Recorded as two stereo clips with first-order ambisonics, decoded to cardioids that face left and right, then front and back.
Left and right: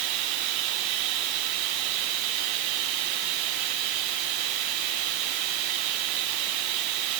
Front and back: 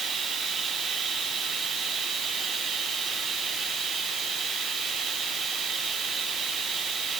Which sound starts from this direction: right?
Running water, at 0.0 s.